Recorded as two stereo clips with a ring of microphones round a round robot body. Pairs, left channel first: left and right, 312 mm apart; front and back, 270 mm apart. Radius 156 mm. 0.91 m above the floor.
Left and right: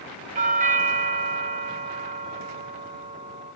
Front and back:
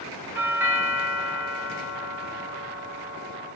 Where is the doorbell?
110° right, 0.7 m.